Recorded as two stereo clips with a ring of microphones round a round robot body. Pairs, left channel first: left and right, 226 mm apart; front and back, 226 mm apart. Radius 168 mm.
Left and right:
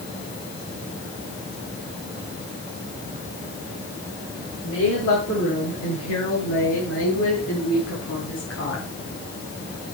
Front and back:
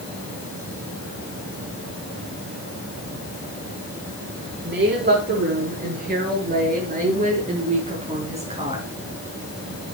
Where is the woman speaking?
140° left, 7.5 m; by 8.9 s 115° left, 5.5 m.